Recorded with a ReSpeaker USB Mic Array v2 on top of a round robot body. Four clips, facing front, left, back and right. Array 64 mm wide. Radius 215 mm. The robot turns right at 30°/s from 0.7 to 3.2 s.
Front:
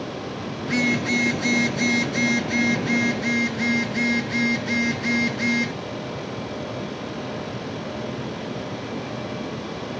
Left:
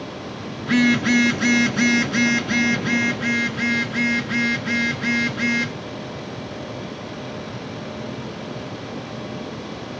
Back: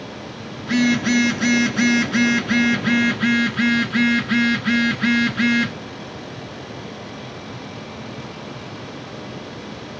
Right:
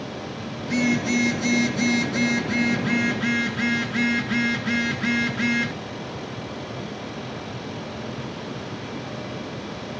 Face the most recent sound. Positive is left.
turn(degrees=180)